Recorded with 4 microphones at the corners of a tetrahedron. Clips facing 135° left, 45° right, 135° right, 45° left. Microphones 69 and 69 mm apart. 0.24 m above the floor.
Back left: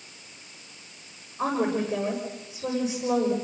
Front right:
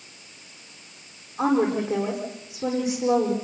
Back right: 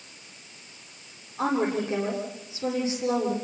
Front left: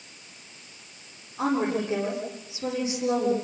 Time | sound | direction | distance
1.4 | a woman speaking | 40° right | 9.5 m